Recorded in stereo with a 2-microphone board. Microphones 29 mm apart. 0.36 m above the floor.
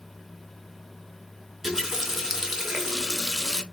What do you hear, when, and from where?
1.6 s a running tap: 15° right (ahead or behind), 0.5 m